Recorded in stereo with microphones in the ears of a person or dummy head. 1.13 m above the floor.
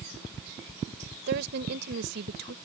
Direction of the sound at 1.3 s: 65° right (ahead or behind).